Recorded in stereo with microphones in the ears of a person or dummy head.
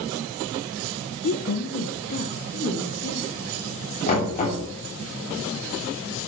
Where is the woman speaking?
50° left (ahead or behind), 0.6 m; by 3.4 s 55° left (ahead or behind), 1.9 m.